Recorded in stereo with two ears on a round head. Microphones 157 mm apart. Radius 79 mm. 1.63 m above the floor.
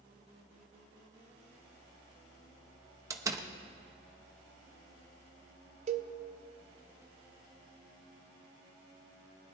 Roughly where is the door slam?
Centre.